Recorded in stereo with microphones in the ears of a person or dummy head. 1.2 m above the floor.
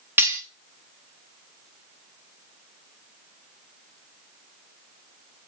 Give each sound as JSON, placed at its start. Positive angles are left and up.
{"t": 0.2, "sound": "cutlery clinking", "side_deg": -10, "distance_m": 1.4}